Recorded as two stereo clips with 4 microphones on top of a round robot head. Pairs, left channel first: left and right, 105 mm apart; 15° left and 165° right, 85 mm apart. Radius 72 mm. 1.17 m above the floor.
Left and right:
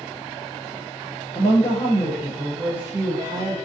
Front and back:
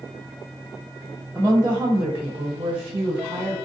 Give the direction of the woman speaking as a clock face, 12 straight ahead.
8 o'clock.